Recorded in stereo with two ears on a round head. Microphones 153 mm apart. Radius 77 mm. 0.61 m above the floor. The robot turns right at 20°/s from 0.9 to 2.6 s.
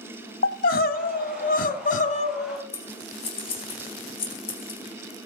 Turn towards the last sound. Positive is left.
turn(degrees=35)  # may be behind; listen again after turning